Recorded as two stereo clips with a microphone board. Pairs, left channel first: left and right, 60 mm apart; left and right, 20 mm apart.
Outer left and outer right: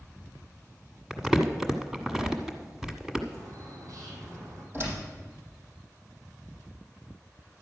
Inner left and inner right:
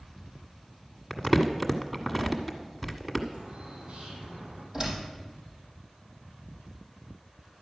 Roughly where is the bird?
Right.